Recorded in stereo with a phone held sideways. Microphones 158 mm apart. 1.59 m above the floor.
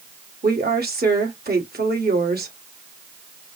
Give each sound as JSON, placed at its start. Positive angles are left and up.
{"t": 0.4, "sound": "a woman speaking", "side_deg": -80, "distance_m": 1.6}